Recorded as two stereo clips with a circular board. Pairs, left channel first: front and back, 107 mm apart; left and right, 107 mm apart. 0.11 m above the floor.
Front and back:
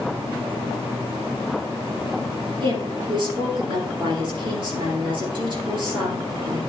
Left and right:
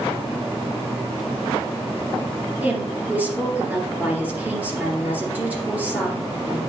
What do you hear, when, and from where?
2.6 s a woman speaking: 160° right, 2.5 m